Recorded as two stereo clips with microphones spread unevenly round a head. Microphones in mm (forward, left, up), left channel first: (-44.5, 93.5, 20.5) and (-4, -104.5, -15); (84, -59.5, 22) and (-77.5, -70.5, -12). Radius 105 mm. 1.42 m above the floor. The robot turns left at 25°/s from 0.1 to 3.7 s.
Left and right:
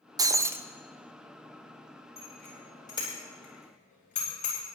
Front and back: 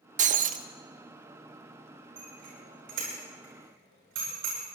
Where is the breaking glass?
155° right, 0.7 m; by 0.7 s 165° right, 0.7 m.